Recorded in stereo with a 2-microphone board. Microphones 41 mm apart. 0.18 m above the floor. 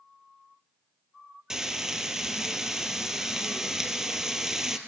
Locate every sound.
1.5 s frying: 10° right (ahead or behind), 2 m